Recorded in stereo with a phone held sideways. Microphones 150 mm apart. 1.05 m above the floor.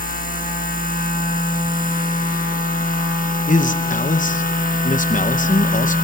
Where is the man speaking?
60° left (ahead or behind), 0.7 m.